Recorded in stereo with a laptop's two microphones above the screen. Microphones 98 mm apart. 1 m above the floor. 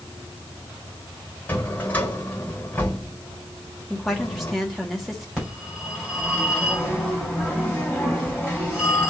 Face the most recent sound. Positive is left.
turn(degrees=-5)  # may be behind; listen again after turning